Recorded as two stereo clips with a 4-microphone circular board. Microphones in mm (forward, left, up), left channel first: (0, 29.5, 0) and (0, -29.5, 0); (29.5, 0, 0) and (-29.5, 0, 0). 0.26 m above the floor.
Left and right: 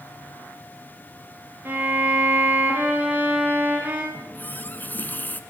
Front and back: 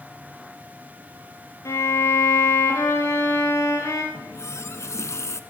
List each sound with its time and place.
1.6 s a violin: 35° right, 8 m
4.1 s a running tap: 30° left, 1.6 m